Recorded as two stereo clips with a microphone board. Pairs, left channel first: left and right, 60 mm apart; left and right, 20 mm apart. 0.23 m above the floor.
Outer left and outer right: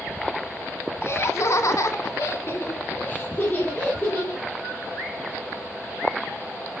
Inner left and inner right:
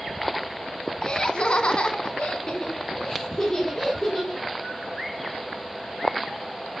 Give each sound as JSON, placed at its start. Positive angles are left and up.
{"t": 1.0, "sound": "laughter", "side_deg": 45, "distance_m": 2.0}